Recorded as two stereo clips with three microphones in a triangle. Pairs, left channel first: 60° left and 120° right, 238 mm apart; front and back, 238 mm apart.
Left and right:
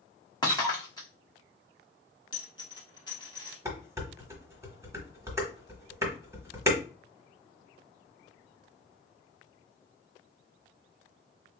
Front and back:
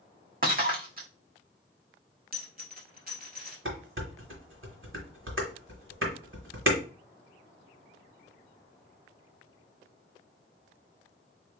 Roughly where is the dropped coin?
Behind left.